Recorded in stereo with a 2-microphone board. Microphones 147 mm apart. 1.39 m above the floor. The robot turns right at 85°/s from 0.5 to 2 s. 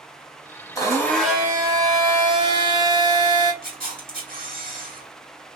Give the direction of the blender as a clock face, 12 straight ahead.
7 o'clock.